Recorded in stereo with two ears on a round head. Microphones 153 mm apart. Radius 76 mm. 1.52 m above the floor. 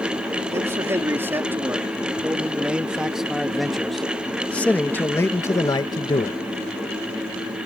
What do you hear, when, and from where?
0.5 s a man speaking: 15° right (ahead or behind); by 6.4 s 30° left (ahead or behind)